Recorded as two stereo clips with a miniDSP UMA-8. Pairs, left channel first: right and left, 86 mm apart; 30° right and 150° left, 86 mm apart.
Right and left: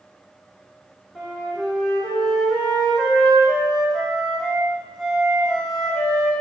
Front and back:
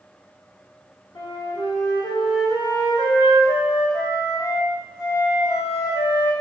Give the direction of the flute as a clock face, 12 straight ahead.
12 o'clock.